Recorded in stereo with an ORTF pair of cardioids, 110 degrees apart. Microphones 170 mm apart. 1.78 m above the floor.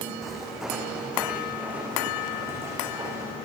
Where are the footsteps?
Straight ahead, 6.5 m; by 3.4 s 20° right, 9 m.